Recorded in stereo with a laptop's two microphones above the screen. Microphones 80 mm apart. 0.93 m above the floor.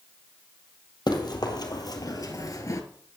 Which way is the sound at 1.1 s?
60° left (ahead or behind).